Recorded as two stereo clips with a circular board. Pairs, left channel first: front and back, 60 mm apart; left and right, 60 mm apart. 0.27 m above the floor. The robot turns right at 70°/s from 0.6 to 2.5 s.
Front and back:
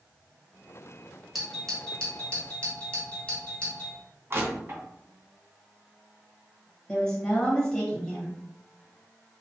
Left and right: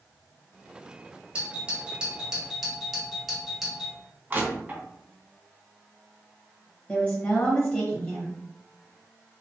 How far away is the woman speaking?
About 1.4 m.